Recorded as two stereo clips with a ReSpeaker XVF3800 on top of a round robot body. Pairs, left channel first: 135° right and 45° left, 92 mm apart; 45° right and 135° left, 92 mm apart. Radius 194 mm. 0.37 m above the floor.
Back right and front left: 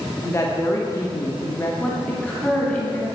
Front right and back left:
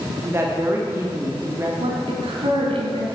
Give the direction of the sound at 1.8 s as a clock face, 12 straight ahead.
7 o'clock.